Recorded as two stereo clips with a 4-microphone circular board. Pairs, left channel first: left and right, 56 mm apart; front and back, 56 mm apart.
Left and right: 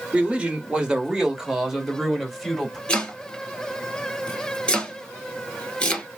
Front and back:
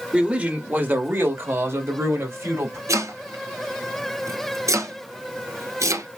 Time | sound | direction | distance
0.1 | a man speaking | 130° right | 1.2 m
2.9 | chopping | 160° left | 1.2 m